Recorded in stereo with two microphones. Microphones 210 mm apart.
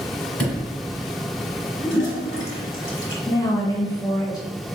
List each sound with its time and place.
0.4 s a sliding door: 5° left (ahead or behind), 1.3 m
1.8 s a toilet flushing: 70° left (ahead or behind), 1.1 m
3.2 s a woman speaking: 15° left (ahead or behind), 1.1 m